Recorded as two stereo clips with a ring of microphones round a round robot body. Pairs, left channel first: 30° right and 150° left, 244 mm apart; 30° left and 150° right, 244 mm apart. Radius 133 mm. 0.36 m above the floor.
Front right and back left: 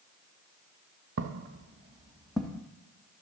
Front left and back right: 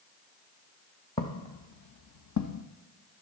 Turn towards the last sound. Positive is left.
turn(degrees=50)